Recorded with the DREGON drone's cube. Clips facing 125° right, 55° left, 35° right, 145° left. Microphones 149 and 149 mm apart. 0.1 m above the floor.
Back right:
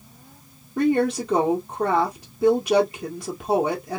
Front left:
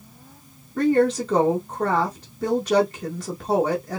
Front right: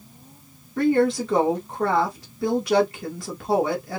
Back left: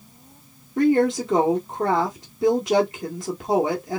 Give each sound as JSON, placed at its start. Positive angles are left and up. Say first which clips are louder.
{"t": 0.8, "sound": "a woman speaking", "louder": "front left 2 dB, back left 1 dB", "azimuth_deg": 175, "distance_m": 1.3}